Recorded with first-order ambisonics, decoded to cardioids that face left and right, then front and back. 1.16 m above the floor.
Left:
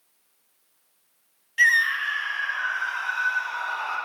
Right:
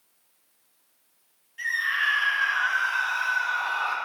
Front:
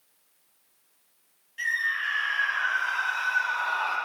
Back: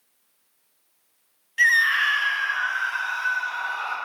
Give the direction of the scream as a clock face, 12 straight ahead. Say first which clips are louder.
Left 6 dB, back 9 dB; 8 o'clock.